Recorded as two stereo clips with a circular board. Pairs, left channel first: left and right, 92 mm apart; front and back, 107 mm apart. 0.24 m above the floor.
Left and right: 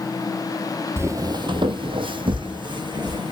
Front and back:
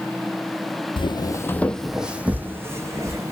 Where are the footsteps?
30° right, 0.5 m; by 3.3 s 125° right, 1.2 m.